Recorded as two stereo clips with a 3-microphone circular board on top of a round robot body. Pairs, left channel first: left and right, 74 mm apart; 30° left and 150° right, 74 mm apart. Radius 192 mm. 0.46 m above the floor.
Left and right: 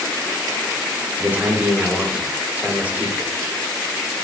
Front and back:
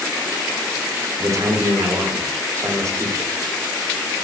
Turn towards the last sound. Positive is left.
turn(degrees=-150)